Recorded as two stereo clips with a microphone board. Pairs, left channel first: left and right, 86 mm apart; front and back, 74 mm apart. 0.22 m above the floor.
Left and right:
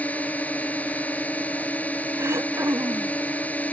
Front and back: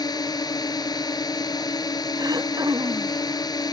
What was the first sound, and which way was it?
A drone, 20° left.